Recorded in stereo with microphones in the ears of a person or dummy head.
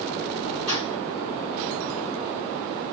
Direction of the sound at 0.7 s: 25° left (ahead or behind).